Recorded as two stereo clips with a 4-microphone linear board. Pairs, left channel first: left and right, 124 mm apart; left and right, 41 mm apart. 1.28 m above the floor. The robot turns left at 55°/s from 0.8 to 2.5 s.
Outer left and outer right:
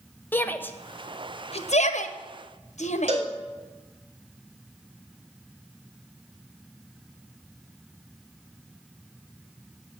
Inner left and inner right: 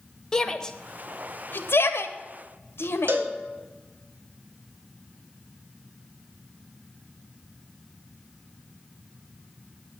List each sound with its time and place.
0.3 s a shout: 15° left (ahead or behind), 0.9 m; by 3.1 s 70° left (ahead or behind), 0.9 m
3.1 s a cowbell: 70° right (ahead or behind), 1.7 m